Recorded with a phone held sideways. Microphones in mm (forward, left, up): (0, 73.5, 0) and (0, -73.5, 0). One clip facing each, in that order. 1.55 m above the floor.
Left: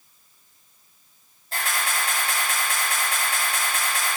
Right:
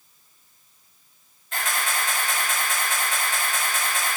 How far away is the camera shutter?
About 1.3 m.